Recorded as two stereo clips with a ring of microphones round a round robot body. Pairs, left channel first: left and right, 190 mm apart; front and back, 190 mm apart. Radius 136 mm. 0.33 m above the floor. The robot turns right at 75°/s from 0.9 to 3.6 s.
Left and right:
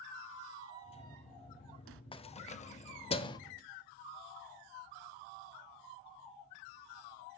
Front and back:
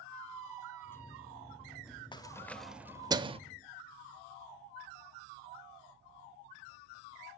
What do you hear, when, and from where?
0.1 s a squeak: 165° right, 0.7 m; by 2.0 s 85° right, 0.7 m
2.1 s keys jangling: 50° left, 0.7 m; by 3.4 s 145° left, 0.7 m